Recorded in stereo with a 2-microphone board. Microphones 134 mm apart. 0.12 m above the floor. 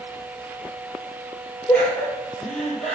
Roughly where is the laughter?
Centre.